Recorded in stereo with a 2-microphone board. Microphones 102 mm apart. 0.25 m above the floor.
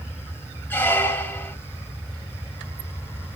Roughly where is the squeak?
Centre.